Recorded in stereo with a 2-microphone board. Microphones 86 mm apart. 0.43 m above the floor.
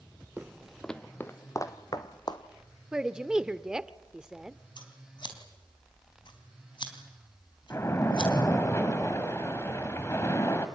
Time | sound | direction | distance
0.4 | footsteps | 15° right (ahead or behind) | 1.0 m
2.9 | a woman speaking | 10° right (ahead or behind) | 0.9 m
4.8 | scissors | 65° left (ahead or behind) | 3.5 m
7.7 | a splash | 30° left (ahead or behind) | 1.9 m